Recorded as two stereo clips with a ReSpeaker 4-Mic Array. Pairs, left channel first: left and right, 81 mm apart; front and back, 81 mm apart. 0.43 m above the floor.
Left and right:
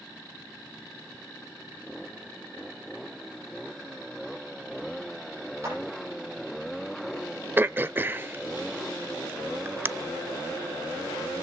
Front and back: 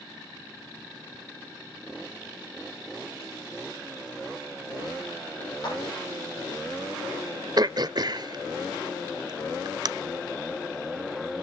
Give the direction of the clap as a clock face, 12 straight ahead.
1 o'clock.